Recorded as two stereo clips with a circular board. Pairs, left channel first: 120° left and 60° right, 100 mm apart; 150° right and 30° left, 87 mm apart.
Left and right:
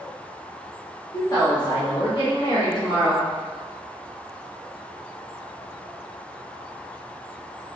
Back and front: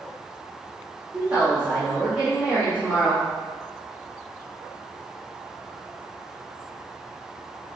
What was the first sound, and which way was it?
A woman speaking, 95° left.